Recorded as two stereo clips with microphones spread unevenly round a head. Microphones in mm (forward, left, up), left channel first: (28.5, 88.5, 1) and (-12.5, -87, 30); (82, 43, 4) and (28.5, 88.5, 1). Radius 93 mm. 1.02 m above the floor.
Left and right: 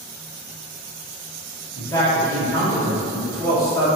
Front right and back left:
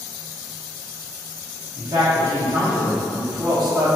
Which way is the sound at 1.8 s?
145° left.